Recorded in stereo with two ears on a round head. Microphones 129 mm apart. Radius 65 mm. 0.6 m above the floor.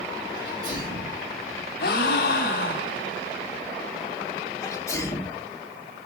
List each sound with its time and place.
0.3 s a sneeze: 30° right (ahead or behind), 3 m
1.8 s a gasp: 70° left (ahead or behind), 0.7 m
4.6 s a sneeze: 20° left (ahead or behind), 1.1 m